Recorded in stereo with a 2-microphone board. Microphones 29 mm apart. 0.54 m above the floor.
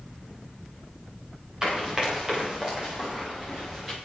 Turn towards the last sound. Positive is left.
turn(degrees=-20)  # may be behind; listen again after turning